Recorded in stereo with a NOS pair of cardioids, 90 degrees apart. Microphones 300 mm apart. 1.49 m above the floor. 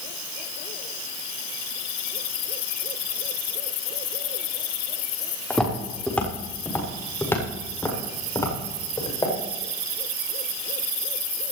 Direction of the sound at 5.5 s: Straight ahead.